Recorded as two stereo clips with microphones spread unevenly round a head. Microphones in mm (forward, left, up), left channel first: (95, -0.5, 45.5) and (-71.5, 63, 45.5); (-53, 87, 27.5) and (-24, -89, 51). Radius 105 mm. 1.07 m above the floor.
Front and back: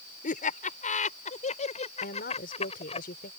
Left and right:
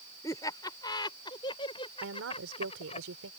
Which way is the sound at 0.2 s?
25° left.